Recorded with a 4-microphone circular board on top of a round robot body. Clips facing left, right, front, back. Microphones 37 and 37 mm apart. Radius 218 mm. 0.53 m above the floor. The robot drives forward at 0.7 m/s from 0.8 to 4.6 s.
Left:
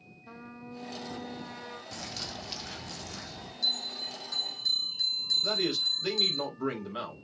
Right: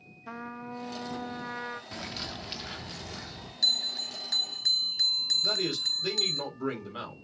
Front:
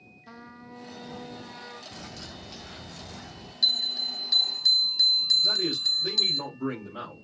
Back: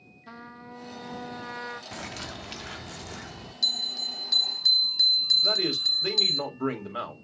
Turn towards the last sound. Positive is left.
turn(degrees=170)